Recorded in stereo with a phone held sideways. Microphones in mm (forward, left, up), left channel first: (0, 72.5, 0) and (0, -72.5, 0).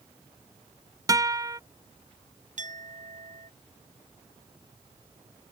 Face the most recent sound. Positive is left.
turn(degrees=-60)  # may be behind; listen again after turning